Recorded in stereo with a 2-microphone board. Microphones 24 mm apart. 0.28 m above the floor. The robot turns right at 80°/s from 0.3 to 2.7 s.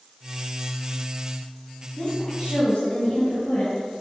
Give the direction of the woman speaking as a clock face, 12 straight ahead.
11 o'clock.